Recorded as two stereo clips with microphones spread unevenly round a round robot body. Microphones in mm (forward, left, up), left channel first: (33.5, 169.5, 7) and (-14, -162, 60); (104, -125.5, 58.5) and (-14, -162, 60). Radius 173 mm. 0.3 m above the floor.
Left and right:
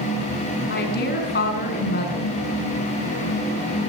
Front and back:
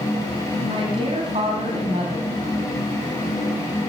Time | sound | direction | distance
0.7 | a woman speaking | 140° left | 2.5 m